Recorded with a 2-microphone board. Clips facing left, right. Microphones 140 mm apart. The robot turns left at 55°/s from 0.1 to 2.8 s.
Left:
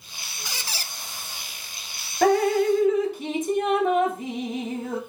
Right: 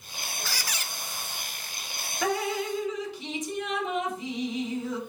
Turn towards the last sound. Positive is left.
turn(degrees=75)